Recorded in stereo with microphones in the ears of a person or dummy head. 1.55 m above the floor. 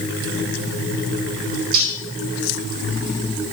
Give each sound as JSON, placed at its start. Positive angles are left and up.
{"t": 1.7, "sound": "cutlery clinking", "side_deg": -45, "distance_m": 3.0}